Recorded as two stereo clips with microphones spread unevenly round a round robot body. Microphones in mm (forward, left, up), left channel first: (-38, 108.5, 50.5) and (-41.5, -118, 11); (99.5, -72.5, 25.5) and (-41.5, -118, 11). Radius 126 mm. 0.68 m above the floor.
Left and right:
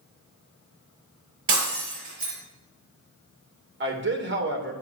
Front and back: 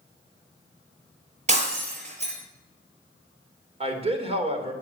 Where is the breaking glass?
120° right, 5 m.